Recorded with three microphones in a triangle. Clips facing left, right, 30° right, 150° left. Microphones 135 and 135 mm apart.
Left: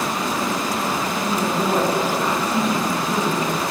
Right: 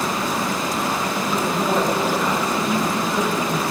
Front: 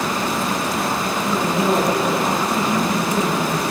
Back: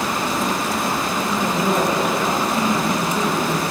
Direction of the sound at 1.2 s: 25° left.